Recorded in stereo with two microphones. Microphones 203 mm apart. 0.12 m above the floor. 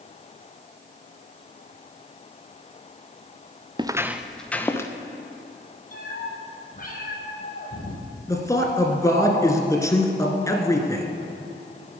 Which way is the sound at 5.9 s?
45° left (ahead or behind).